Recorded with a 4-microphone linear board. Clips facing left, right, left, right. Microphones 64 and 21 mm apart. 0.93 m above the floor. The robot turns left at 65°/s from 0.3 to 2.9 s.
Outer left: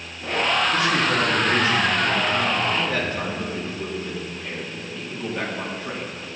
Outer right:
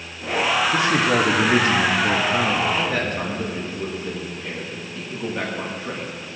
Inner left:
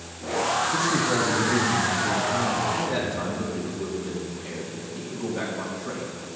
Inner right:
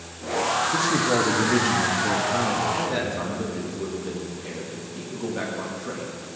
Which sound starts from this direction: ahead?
A man speaking, at 0.7 s.